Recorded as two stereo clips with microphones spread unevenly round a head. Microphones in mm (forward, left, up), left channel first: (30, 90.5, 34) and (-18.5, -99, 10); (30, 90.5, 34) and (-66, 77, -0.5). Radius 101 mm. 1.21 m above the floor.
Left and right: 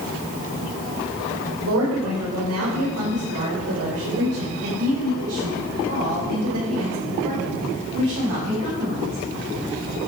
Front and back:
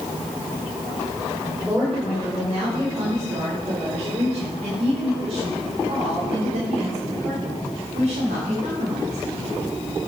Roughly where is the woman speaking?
Right.